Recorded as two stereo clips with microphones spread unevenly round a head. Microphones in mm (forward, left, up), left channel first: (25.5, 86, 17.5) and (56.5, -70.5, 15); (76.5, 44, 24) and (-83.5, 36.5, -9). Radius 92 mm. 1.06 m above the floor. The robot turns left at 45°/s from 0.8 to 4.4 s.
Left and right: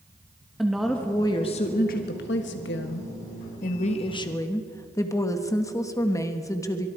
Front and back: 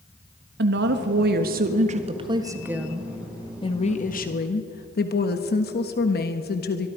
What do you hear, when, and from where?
0.6 s a woman speaking: 170° right, 1.4 m; by 6.9 s 30° left, 1.4 m